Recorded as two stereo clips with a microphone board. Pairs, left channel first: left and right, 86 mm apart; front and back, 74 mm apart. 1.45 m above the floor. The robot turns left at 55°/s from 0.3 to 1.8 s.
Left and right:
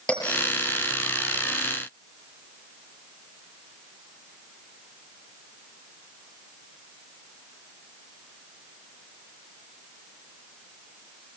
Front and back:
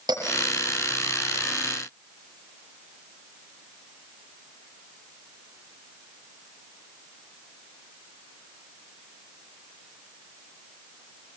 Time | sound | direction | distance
0.1 | a bell | 170° left | 6 m